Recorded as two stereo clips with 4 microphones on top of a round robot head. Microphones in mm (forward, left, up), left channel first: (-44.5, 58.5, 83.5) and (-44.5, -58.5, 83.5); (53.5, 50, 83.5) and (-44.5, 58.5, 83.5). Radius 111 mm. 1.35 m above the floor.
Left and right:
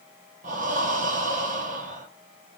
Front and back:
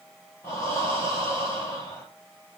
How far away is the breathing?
About 1.9 m.